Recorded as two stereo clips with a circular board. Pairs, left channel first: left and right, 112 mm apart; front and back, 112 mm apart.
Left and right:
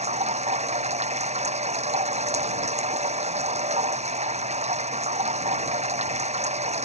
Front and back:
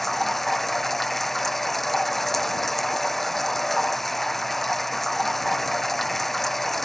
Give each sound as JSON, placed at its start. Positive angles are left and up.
{"t": 0.0, "sound": "running water", "azimuth_deg": -90}